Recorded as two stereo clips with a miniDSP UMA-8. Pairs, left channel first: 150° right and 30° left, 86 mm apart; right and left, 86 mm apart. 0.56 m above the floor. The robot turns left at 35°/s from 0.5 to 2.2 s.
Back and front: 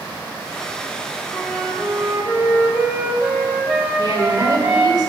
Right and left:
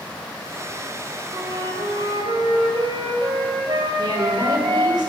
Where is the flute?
140° left, 1.2 m; by 5.0 s 110° left, 1.2 m.